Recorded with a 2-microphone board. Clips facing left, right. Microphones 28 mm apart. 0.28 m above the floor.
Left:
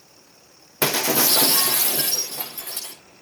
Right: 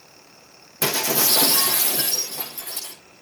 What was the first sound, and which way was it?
Breaking glass, 45° left (ahead or behind).